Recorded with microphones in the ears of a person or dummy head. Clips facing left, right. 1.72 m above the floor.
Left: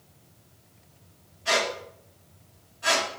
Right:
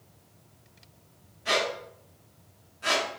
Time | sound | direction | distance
1.4 | a squeak | 15° right (ahead or behind) | 0.9 m